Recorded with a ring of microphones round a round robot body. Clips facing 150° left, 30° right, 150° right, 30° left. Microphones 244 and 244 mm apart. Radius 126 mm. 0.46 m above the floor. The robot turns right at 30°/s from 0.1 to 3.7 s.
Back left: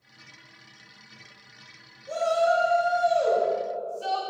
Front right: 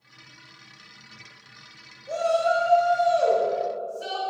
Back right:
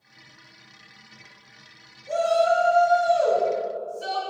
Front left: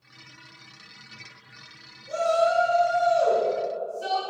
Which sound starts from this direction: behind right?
A shout, at 2.1 s.